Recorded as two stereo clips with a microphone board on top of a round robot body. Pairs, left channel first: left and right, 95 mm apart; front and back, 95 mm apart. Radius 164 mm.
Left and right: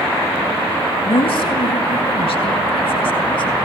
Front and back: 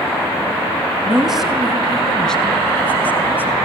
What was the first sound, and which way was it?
A woman speaking, 95° left.